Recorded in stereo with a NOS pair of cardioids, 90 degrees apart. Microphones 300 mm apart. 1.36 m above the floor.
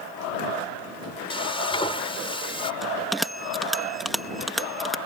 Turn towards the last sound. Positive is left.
turn(degrees=0)